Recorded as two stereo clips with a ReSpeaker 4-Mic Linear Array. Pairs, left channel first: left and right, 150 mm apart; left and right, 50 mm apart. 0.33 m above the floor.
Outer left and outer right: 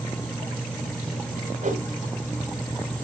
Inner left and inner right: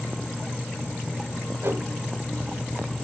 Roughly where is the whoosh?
Right.